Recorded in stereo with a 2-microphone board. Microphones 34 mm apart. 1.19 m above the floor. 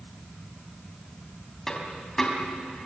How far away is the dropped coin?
About 4 m.